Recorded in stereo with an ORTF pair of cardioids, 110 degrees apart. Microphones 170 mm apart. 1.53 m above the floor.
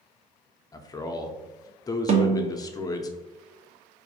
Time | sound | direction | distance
0.7 | a man speaking | 25° left | 0.5 m
2.1 | a snare drum | 40° right | 0.8 m